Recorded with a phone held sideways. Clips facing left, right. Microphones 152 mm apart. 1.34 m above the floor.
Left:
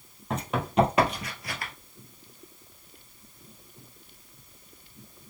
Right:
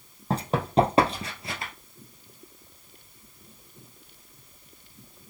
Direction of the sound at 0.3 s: 35° right (ahead or behind).